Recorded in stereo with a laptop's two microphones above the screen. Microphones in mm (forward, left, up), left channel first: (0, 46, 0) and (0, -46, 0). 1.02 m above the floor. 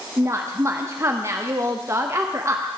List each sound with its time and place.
0.2 s a woman speaking: 30° right (ahead or behind), 0.7 m